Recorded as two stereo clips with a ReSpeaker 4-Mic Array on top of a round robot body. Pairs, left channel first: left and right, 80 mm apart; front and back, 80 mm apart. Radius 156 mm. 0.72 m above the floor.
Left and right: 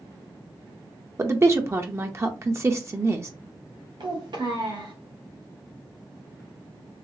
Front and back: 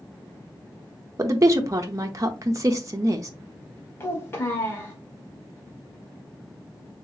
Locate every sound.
1.2 s a woman speaking: 140° right, 0.8 m
4.0 s a child speaking: 60° right, 1.8 m